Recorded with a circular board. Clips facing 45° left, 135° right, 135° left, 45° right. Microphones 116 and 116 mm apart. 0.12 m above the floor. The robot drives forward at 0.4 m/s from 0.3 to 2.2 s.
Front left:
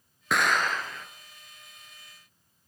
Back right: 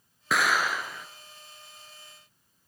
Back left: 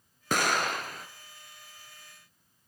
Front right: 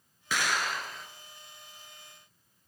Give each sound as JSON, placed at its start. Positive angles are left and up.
{"t": 0.3, "sound": "an explosion", "azimuth_deg": 135, "distance_m": 0.8}